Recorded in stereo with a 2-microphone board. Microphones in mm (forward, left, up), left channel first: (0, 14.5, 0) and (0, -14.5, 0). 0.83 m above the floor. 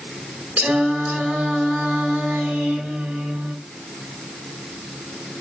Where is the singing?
70° right (ahead or behind), 1.3 m.